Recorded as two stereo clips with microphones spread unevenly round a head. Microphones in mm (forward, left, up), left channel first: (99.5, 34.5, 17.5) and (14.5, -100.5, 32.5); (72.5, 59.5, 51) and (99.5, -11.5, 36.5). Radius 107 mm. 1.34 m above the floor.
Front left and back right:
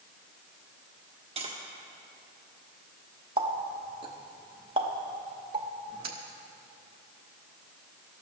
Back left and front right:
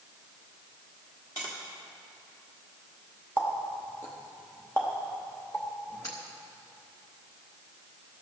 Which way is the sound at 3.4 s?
175° left.